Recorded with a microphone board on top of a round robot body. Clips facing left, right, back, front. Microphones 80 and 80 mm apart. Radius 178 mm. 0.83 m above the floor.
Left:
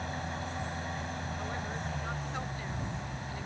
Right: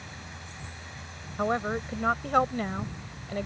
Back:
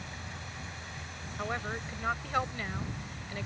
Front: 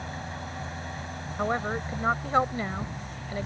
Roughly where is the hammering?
I don't hear hammering.